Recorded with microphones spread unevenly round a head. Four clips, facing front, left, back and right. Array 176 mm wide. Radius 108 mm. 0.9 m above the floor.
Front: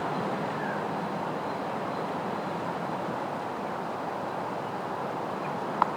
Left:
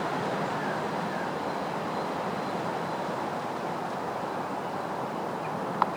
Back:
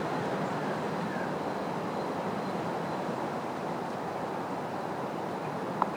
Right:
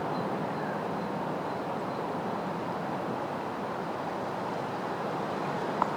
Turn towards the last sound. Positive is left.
No sound to turn to.